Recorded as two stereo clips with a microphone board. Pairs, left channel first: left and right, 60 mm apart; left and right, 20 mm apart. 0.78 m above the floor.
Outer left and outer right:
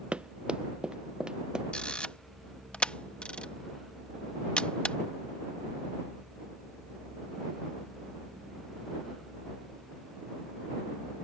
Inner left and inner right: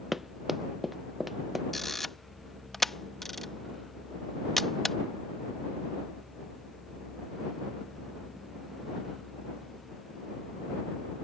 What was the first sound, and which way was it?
Running footsteps, 15° right (ahead or behind).